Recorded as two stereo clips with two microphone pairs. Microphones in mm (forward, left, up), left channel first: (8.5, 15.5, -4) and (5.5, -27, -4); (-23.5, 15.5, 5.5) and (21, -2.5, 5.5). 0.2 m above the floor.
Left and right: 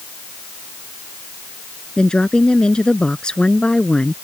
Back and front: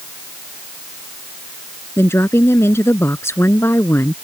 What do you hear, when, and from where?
2.0 s a woman speaking: 155° left